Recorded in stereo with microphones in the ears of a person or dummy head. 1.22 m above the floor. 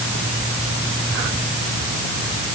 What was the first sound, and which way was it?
Only background noise.